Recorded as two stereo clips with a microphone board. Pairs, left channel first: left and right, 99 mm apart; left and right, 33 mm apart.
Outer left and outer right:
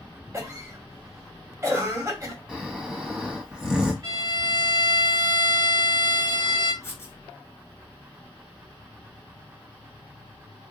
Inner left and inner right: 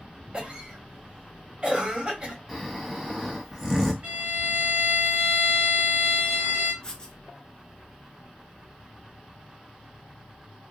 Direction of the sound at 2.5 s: 10° right (ahead or behind).